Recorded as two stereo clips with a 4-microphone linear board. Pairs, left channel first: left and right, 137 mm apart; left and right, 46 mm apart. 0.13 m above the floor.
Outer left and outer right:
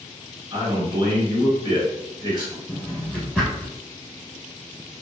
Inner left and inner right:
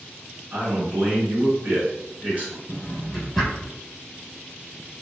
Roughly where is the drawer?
Centre.